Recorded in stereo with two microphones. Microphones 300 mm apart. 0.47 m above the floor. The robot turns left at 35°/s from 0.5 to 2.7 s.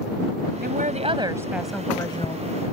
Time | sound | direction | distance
0.6 | a woman speaking | 145° right | ?